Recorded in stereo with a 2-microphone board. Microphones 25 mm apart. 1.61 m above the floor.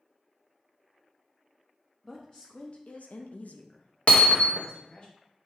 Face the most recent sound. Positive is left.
turn(degrees=50)  # may be behind; listen again after turning